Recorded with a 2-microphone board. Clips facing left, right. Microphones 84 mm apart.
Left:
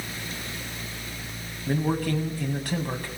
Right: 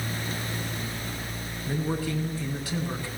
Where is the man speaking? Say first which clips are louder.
Left 4 dB; 55° left (ahead or behind), 6.5 m.